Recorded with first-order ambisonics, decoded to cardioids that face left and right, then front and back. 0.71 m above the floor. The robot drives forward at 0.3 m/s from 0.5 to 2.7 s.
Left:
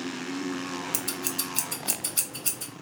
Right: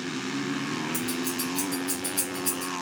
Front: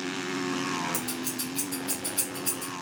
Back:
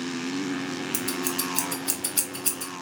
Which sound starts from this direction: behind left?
Scissors, at 0.9 s.